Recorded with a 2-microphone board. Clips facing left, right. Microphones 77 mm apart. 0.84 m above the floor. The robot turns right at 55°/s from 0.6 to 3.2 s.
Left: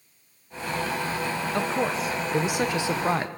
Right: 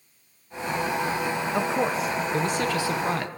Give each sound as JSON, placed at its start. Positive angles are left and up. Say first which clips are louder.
{"t": 1.5, "sound": "a man speaking", "louder": "right 1 dB", "side_deg": -10, "distance_m": 0.6}